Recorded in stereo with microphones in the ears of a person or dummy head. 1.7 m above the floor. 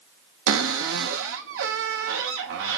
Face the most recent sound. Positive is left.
turn(degrees=-75)  # may be behind; listen again after turning